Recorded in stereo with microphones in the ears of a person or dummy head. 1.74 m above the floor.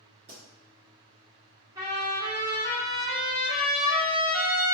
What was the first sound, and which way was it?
A pop, 35° right (ahead or behind).